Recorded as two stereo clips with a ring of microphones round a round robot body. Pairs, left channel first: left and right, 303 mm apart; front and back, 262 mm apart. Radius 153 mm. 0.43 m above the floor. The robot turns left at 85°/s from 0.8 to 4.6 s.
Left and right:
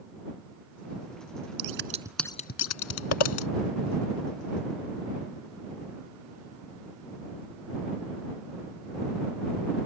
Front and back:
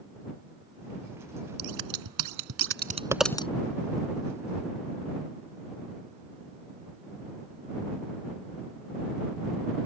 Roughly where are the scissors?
Behind right.